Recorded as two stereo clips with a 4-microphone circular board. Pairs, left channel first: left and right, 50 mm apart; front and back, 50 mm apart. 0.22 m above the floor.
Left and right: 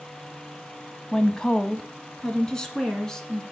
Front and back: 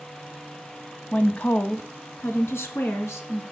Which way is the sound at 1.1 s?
30° left.